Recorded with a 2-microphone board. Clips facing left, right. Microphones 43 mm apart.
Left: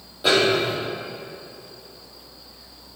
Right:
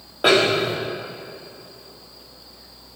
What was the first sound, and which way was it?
A snare drum, 55° right (ahead or behind).